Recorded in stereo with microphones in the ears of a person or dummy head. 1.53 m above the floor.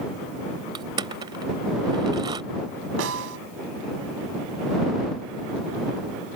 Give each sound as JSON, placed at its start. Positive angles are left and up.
{"t": 0.8, "sound": "crushing", "side_deg": -25}
{"t": 3.0, "sound": "a snare drum", "side_deg": -75}